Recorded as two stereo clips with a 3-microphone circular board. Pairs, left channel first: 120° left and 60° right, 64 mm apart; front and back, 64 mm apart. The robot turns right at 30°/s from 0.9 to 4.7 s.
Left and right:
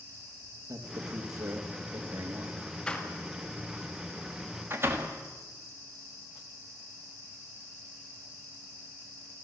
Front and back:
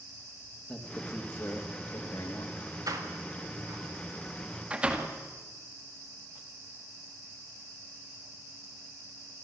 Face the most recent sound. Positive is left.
turn(degrees=-110)